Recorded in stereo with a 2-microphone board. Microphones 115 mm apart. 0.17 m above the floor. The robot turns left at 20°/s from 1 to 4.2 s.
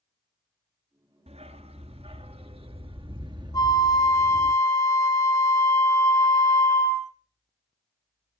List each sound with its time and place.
1.3 s a dog barking: 90° right, 1.3 m; by 4.5 s 150° right, 1.3 m
3.5 s a flute: 35° left (ahead or behind), 2.5 m; by 7.1 s 25° left (ahead or behind), 2.5 m